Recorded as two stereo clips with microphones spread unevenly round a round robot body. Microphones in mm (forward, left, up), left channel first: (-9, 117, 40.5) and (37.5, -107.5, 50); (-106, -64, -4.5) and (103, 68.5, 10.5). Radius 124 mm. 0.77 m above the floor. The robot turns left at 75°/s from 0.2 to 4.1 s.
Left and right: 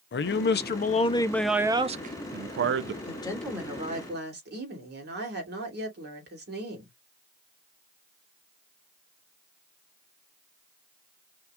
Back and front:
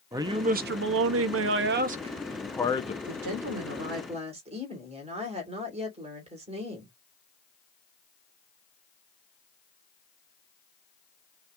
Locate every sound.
0.1 s a man speaking: 110° left, 0.7 m; by 3.0 s 100° right, 0.7 m
3.1 s a woman speaking: 45° left, 2.5 m; by 6.9 s 35° right, 2.5 m